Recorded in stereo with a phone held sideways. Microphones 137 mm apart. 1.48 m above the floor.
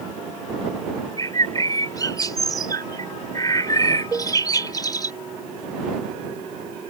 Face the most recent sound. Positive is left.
turn(degrees=-15)  # may be behind; listen again after turning